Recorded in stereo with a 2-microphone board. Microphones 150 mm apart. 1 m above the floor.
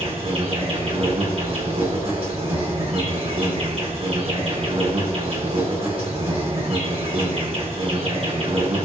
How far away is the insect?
About 5.5 m.